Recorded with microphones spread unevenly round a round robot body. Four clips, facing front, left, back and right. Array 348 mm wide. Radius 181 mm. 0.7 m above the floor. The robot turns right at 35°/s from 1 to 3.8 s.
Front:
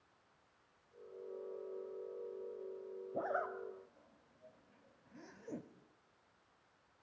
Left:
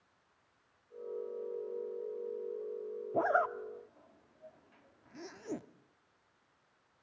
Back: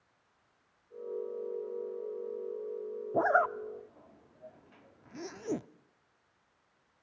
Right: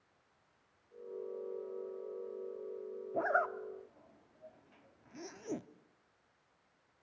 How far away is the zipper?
About 0.5 m.